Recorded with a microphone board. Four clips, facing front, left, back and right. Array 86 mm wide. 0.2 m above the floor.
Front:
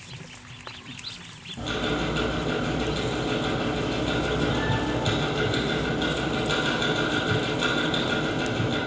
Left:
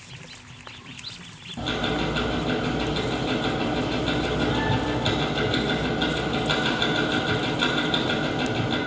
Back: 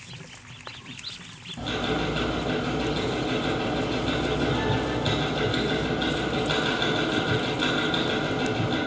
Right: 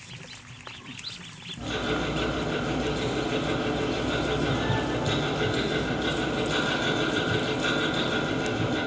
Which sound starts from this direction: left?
Ticking, at 1.6 s.